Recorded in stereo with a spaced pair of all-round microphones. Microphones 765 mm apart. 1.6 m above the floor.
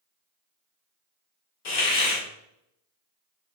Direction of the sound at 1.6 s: 75° left (ahead or behind).